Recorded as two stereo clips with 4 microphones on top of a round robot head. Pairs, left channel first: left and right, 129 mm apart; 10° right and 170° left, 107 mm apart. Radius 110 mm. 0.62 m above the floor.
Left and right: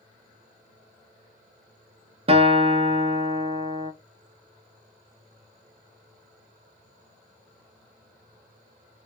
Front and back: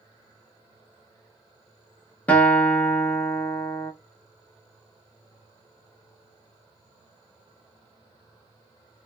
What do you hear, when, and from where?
2.3 s a guitar: 85° right, 0.8 m